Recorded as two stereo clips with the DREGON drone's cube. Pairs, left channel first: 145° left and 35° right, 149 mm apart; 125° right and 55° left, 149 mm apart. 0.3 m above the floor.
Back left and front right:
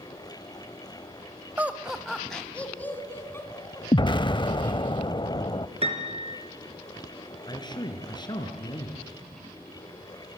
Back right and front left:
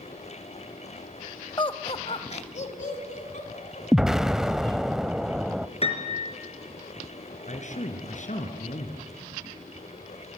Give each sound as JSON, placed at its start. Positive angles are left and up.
{"t": 1.6, "sound": "laughter", "azimuth_deg": -100, "distance_m": 1.0}
{"t": 3.9, "sound": "an explosion", "azimuth_deg": 140, "distance_m": 0.6}
{"t": 5.8, "sound": "a piano", "azimuth_deg": -80, "distance_m": 4.5}
{"t": 7.5, "sound": "a man speaking", "azimuth_deg": -155, "distance_m": 4.0}